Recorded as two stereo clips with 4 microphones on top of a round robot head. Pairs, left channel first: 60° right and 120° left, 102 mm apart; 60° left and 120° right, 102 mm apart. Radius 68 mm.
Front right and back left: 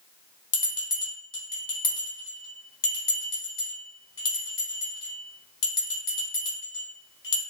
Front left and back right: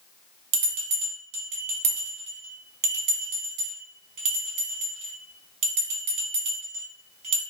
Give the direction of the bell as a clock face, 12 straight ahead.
3 o'clock.